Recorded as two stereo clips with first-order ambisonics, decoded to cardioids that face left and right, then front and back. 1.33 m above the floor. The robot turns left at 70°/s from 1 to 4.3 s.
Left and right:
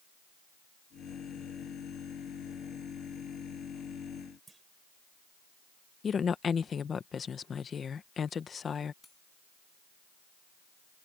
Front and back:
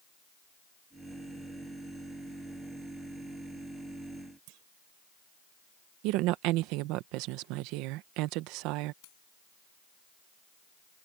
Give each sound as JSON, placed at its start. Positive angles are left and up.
{"t": 4.5, "sound": "a clunk", "azimuth_deg": -170}
{"t": 6.0, "sound": "a woman speaking", "azimuth_deg": 160}
{"t": 9.0, "sound": "cutlery clinking", "azimuth_deg": 10}